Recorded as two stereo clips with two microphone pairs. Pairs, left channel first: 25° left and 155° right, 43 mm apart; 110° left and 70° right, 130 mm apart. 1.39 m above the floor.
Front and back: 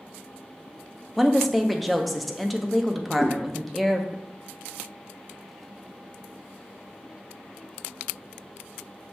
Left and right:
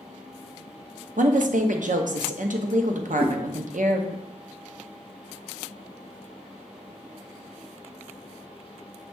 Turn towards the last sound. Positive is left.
turn(degrees=-45)